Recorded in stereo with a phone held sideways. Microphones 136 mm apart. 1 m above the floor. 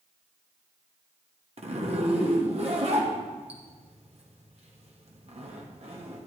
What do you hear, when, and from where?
1.6 s a zipper: 50° right (ahead or behind), 1.5 m